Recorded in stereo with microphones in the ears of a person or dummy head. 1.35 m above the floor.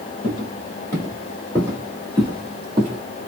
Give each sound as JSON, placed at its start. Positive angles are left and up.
{"t": 0.2, "sound": "footsteps", "side_deg": 25, "distance_m": 1.6}